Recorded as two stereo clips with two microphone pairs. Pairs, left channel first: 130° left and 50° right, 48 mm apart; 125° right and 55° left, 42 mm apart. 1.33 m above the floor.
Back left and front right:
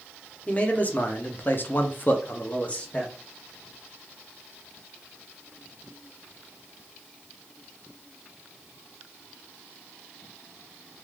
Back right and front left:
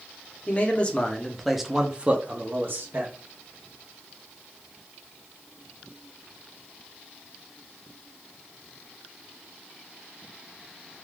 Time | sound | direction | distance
0.5 | a man speaking | 175° right | 0.8 m